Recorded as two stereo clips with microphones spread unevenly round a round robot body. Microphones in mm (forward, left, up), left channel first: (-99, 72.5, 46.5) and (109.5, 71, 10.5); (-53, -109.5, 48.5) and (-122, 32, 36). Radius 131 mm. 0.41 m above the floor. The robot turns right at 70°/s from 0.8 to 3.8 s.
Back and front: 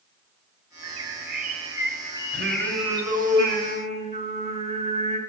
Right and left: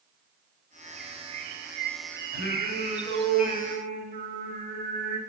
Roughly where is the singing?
Ahead right.